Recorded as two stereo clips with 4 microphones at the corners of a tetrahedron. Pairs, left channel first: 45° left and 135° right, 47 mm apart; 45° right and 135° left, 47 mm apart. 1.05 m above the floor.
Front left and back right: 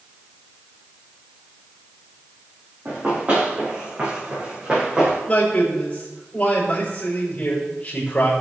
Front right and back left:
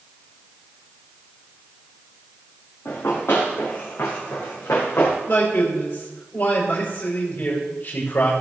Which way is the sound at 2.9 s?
75° right.